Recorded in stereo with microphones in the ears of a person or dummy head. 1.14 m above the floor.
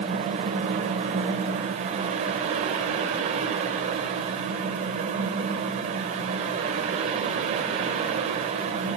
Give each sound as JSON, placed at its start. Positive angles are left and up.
{"t": 0.0, "sound": "a fan", "side_deg": -35, "distance_m": 1.3}